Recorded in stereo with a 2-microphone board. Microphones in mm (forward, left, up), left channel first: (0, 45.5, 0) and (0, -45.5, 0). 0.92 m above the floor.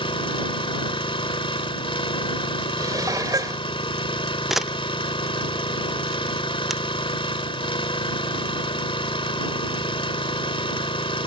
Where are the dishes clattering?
45° right (ahead or behind).